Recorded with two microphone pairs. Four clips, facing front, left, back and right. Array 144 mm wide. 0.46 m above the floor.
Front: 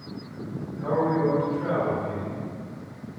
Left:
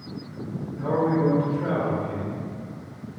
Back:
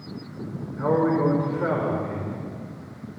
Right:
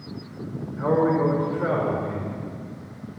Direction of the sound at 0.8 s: 150° right.